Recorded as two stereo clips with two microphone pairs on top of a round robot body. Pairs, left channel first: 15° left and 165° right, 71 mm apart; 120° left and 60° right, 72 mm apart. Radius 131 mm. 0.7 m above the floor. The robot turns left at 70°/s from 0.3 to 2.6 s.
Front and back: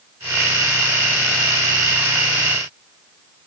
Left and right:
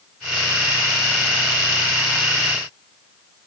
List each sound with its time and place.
Only background noise.